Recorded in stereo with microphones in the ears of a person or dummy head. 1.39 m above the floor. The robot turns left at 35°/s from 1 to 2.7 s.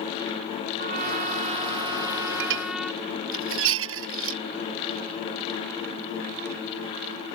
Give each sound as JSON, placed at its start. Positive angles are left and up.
{"t": 0.8, "sound": "a trumpet", "azimuth_deg": -115}
{"t": 2.4, "sound": "dishes clattering", "side_deg": -65}